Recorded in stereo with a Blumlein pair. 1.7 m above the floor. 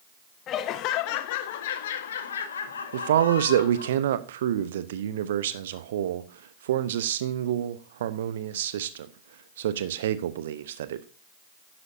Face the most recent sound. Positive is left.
turn(degrees=-60)